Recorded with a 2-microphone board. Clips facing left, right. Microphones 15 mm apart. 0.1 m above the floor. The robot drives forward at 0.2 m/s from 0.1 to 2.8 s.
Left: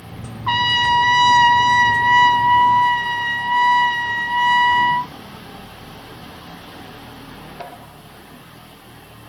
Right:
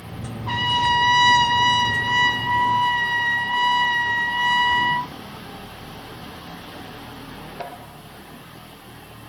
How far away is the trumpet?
About 0.6 m.